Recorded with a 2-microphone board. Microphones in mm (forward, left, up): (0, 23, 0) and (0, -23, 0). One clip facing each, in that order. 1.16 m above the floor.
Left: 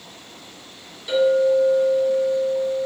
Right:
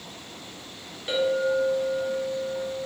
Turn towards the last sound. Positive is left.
turn(degrees=-30)  # may be behind; listen again after turning